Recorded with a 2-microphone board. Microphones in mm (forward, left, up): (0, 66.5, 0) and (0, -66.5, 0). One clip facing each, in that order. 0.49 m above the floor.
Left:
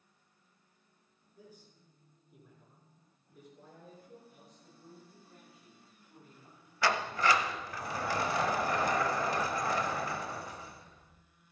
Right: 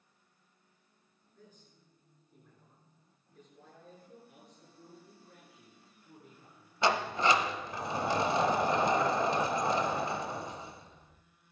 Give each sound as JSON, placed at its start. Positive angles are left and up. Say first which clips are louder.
{"t": 1.4, "sound": "a man speaking", "louder": "left 3 dB", "side_deg": 10, "distance_m": 7.5}
{"t": 4.3, "sound": "a man speaking", "louder": "right 1 dB", "side_deg": -70, "distance_m": 7.5}
{"t": 6.8, "sound": "a sliding door", "louder": "right 2 dB", "side_deg": -20, "distance_m": 0.7}